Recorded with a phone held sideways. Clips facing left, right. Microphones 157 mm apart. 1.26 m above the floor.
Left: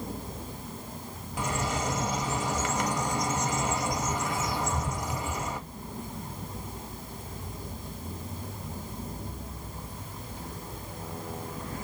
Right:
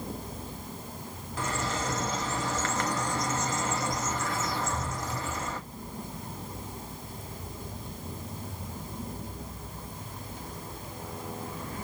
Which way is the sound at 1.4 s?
15° left (ahead or behind).